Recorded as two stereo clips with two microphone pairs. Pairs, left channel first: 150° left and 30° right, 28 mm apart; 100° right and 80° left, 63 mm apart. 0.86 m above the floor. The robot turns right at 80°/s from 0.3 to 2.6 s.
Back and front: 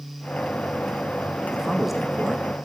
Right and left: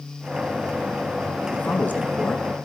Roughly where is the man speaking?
Behind right.